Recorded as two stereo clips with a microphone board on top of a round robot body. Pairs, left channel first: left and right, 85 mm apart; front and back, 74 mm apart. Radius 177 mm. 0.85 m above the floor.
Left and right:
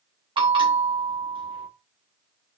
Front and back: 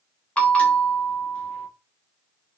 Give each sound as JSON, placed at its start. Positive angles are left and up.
{"t": 0.4, "sound": "a bell", "azimuth_deg": -75, "distance_m": 2.5}